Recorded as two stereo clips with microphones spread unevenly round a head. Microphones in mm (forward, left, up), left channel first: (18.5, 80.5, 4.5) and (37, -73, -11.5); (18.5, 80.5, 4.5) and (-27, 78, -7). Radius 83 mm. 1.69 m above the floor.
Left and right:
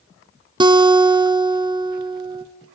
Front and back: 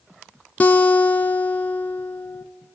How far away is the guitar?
About 0.5 m.